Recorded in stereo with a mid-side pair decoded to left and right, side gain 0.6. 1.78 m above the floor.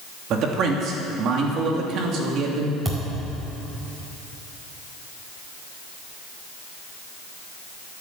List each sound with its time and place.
0.3 s a man speaking: 55° right, 3 m
2.9 s a thud: 15° right, 4.5 m